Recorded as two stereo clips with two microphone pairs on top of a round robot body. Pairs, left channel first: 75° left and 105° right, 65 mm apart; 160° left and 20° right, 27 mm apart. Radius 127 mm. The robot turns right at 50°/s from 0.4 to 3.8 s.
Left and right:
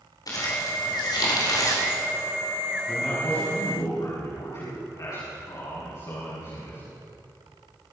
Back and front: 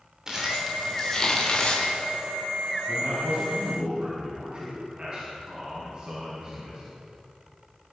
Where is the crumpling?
45° left, 3.5 m; by 1.9 s 120° left, 3.5 m.